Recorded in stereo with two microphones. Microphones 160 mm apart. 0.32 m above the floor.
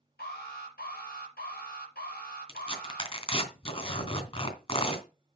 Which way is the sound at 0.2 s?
80° left.